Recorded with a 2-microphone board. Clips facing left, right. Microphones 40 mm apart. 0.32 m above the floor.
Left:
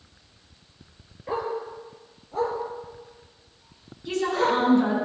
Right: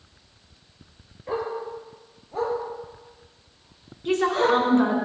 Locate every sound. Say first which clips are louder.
1.3 s a dog barking: even; 5° left (ahead or behind), 2.5 m; by 4.6 s 5° right (ahead or behind), 5 m
4.0 s a woman speaking: right 3 dB; 50° right (ahead or behind), 3.5 m